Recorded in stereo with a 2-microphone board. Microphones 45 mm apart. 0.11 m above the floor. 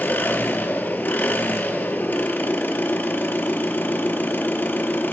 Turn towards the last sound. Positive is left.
turn(degrees=40)  # may be behind; listen again after turning